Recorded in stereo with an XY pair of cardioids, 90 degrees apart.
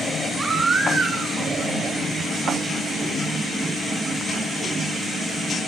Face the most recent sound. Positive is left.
turn(degrees=-65)